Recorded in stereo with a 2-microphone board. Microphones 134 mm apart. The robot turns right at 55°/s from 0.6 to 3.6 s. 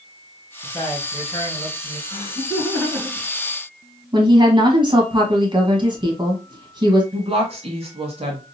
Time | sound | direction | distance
0.6 | a man speaking | 55° left | 1.4 m
2.1 | laughter | 140° left | 2.0 m
4.1 | a woman speaking | 35° right (ahead or behind) | 1.3 m
7.1 | a woman speaking | 45° right (ahead or behind) | 1.3 m